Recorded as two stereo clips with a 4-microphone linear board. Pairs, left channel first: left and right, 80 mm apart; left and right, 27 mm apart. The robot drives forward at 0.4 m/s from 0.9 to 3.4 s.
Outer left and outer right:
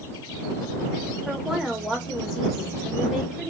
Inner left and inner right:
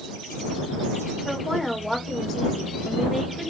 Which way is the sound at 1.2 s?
5° right (ahead or behind).